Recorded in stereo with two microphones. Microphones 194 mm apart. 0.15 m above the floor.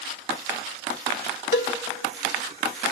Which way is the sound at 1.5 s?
60° left (ahead or behind).